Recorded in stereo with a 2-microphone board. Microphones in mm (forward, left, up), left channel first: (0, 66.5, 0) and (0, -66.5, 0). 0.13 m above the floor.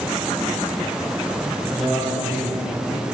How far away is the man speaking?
About 4 m.